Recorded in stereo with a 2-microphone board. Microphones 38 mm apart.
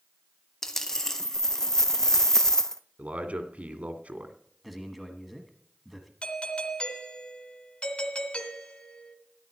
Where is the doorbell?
35° left (ahead or behind), 1.9 m.